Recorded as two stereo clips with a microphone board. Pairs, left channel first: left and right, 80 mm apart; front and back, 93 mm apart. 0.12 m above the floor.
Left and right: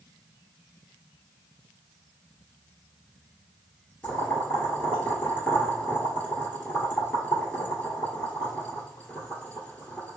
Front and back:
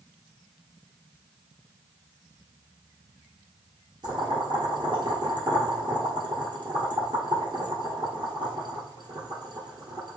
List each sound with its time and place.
4.0 s boiling: 160° left, 1.5 m